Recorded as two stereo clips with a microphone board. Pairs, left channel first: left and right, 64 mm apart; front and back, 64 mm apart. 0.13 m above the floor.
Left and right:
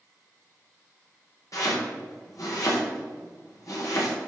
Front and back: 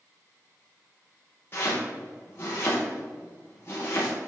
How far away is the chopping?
About 5 m.